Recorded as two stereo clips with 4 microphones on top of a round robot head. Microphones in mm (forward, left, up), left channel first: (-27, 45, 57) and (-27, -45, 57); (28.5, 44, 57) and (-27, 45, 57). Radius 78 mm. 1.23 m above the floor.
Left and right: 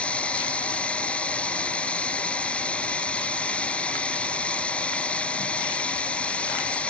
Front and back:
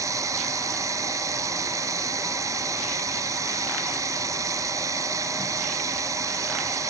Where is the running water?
165° left.